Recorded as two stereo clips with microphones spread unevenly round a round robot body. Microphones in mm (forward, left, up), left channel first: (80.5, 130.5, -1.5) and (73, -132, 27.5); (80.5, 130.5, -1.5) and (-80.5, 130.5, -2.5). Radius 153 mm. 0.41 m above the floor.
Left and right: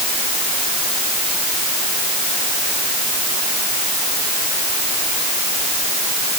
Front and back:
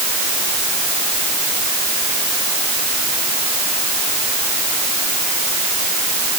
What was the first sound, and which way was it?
Only background noise.